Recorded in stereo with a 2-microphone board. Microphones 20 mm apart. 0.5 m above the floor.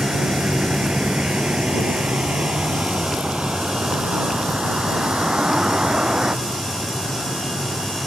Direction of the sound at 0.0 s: 50° right (ahead or behind).